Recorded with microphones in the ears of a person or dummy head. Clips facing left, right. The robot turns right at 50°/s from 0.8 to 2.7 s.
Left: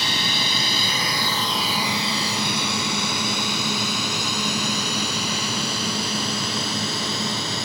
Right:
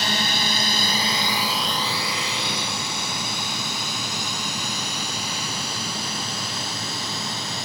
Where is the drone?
45° right (ahead or behind); by 7.7 s 55° left (ahead or behind).